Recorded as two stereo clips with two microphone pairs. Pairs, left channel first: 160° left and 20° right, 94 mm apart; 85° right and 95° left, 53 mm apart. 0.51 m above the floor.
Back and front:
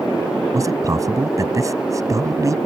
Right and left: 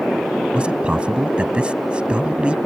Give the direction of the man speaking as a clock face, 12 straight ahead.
11 o'clock.